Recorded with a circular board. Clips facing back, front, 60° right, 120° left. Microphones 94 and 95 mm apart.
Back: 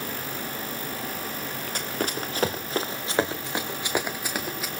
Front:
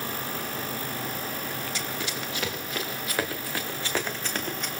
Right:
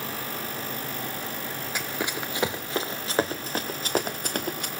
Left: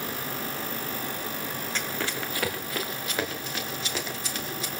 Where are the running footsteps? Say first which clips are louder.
Back 3 dB, right 2 dB; 140° right, 2 m; by 4.7 s 95° right, 2.5 m.